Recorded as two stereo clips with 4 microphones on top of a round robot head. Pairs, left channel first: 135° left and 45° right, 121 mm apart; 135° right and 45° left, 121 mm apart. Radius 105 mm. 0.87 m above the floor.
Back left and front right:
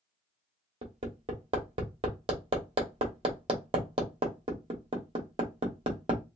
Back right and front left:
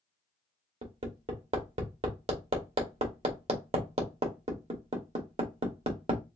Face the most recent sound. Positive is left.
turn(degrees=5)